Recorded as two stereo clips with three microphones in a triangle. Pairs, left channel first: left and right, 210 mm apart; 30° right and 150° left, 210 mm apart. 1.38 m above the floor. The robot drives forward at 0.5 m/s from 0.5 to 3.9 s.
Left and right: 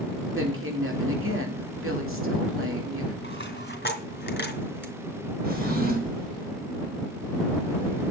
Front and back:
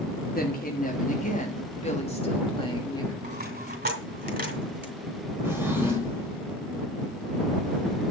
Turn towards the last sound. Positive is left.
turn(degrees=-130)